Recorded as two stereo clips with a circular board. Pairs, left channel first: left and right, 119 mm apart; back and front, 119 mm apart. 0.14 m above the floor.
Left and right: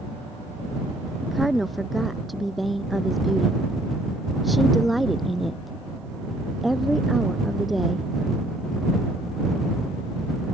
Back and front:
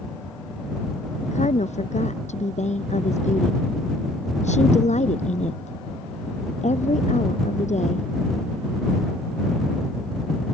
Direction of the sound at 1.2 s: Straight behind.